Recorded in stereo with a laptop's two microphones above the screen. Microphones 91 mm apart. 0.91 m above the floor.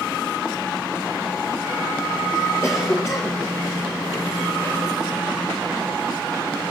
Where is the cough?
30° left (ahead or behind), 0.9 m.